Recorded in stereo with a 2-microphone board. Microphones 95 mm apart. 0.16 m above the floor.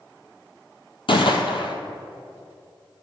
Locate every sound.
1.1 s a gunshot: 60° left (ahead or behind), 1.1 m